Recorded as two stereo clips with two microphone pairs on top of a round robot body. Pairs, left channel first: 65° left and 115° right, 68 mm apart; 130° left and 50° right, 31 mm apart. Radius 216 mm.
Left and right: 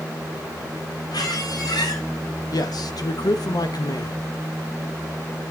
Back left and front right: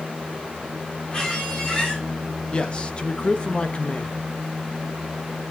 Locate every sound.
1.1 s a squeak: 85° left, 8 m
2.5 s a man speaking: 80° left, 1.2 m